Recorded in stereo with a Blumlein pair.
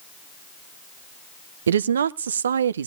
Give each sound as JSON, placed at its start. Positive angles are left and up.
{"t": 1.7, "sound": "a woman speaking", "azimuth_deg": -65, "distance_m": 0.5}